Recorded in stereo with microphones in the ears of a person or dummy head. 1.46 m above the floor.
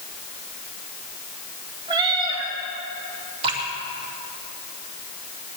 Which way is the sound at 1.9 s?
30° right (ahead or behind).